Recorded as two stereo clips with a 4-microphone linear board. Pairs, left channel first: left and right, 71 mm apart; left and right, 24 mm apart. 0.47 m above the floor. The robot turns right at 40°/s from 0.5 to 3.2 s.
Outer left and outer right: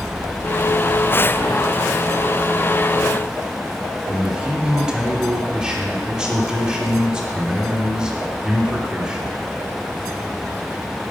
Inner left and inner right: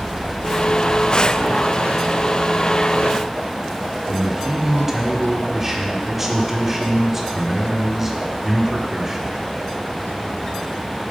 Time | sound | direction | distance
4.1 | a man speaking | 10° right (ahead or behind) | 1.0 m